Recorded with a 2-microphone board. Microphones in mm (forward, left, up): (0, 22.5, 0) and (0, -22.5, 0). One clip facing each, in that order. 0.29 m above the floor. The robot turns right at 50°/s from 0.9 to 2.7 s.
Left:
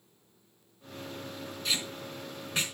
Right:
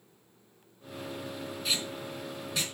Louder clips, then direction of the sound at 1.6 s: Even; 5° right (ahead or behind).